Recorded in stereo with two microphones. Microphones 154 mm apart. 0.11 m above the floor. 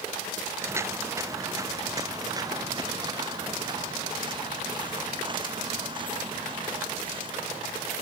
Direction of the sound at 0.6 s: 15° right (ahead or behind).